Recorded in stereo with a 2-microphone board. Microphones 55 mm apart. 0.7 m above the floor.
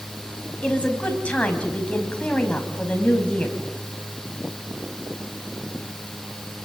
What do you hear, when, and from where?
0.6 s a woman speaking: 25° left (ahead or behind), 4.5 m